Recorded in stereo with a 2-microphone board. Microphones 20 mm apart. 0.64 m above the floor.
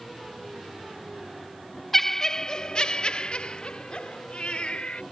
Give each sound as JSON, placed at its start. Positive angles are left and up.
{"t": 1.9, "sound": "laughter", "side_deg": 15}